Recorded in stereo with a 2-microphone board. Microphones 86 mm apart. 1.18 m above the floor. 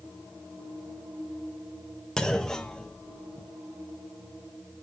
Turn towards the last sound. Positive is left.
turn(degrees=10)  # may be behind; listen again after turning